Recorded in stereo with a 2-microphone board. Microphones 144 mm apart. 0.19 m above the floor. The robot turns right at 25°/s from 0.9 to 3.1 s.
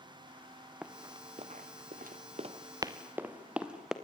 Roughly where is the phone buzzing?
No phone buzzing in this recording.